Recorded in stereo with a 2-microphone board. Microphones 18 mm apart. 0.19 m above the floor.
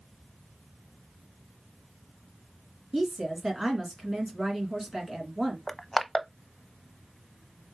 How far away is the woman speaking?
About 2.5 m.